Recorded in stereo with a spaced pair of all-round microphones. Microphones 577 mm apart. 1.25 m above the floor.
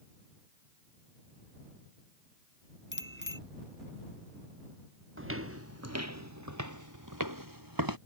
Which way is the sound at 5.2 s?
20° right (ahead or behind).